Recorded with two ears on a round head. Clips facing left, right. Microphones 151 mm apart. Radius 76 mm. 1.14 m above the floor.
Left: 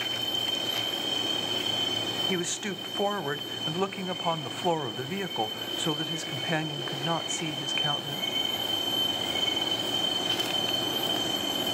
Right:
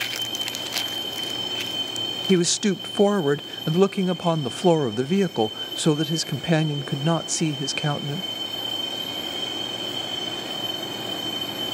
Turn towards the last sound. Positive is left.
turn(degrees=-50)  # may be behind; listen again after turning